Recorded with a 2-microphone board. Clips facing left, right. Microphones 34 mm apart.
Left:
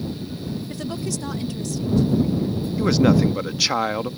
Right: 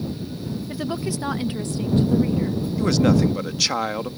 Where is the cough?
I don't hear a cough.